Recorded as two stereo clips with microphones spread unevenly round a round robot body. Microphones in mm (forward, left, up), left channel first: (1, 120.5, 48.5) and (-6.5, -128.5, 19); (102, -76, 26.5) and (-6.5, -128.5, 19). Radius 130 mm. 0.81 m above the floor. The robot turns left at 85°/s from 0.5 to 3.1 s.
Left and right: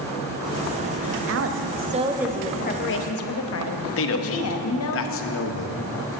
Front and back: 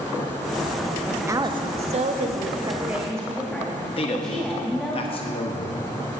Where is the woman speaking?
75° right, 1.2 m; by 5.0 s 115° left, 1.2 m.